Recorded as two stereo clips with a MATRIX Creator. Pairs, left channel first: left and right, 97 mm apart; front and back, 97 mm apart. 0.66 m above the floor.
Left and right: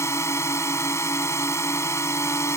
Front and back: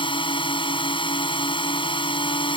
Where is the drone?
30° left.